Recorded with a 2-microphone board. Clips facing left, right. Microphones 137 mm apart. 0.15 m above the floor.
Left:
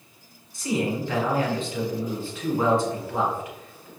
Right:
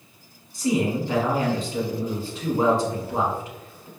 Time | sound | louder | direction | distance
0.5 | a man speaking | right 3 dB | 35° right (ahead or behind) | 1.5 m